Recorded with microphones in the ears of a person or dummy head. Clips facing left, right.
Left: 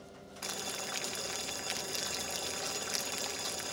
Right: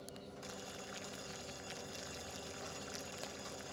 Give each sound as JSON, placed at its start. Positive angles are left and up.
{"t": 0.4, "sound": "boiling", "side_deg": 85}